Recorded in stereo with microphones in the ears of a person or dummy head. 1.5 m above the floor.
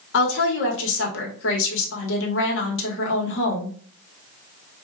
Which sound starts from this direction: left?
A woman speaking, at 0.1 s.